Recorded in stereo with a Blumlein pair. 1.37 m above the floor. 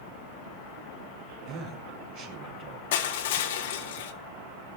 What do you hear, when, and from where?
1.4 s a man speaking: 45° right, 6 m
2.9 s crushing: 55° left, 1.8 m